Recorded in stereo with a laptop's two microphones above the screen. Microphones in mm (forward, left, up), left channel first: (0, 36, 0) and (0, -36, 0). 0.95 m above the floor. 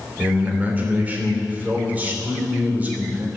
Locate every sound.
0.2 s a man speaking: 20° right (ahead or behind), 3 m